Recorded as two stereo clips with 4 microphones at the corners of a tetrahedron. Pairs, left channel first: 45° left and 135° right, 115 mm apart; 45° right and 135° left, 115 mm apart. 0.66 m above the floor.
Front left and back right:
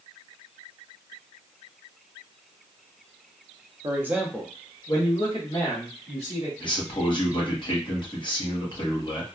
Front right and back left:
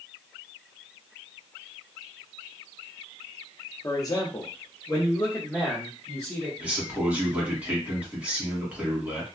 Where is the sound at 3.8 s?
90° right, 0.7 m; by 6.5 s 25° left, 1.8 m.